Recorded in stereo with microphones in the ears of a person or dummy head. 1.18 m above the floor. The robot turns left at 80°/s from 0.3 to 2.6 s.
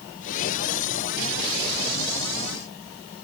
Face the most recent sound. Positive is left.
No sound to turn to.